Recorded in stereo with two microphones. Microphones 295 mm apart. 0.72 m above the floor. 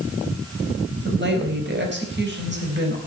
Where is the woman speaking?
40° right (ahead or behind), 4 m.